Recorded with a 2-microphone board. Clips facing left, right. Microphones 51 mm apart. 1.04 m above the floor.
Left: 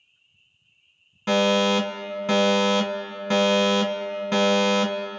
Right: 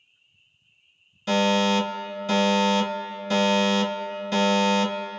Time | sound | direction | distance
1.3 | a fire alarm | 40° left (ahead or behind) | 2.0 m